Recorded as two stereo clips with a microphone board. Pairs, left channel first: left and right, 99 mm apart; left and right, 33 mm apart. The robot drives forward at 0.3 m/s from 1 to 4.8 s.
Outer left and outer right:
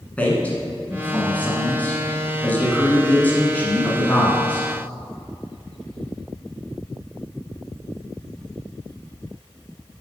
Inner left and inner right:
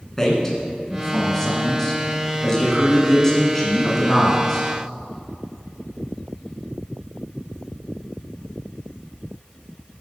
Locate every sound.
0.2 s a man speaking: 15° left (ahead or behind), 1.5 m